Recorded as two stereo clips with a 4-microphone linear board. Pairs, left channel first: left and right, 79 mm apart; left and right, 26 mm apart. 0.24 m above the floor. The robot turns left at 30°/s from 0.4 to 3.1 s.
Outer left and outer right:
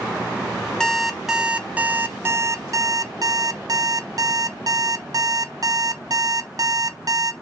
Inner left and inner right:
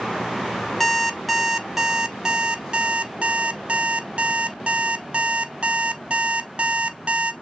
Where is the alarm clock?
10° left, 0.6 m; by 7.3 s 60° right, 0.6 m.